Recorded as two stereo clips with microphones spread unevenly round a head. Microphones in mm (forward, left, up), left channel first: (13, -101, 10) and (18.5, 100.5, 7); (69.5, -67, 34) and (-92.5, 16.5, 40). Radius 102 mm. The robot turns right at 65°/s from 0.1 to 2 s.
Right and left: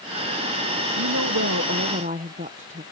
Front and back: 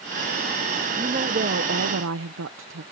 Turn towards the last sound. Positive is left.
turn(degrees=145)